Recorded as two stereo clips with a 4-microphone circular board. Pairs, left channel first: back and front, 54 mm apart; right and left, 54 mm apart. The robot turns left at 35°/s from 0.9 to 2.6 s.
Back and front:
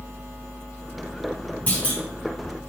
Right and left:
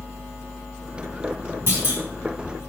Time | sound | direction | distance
1.7 | a clunk | 130° left | 2 m